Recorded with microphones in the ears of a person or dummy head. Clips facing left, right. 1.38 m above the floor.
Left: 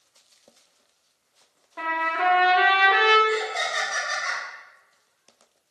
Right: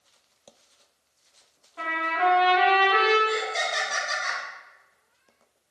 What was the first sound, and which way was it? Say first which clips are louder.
A trumpet: even; 65° left (ahead or behind).